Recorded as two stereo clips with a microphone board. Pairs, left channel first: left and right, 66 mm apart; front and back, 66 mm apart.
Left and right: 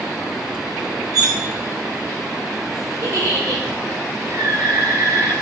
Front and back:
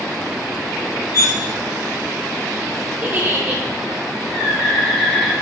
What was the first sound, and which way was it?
Cutlery clinking, 100° right.